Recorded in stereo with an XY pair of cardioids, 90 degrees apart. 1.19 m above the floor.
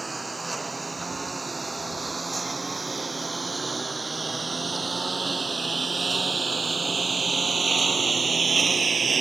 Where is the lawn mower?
20° right; by 9.2 s 40° right.